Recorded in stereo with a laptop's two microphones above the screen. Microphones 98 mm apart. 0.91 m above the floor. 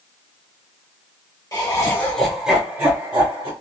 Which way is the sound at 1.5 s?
40° left (ahead or behind).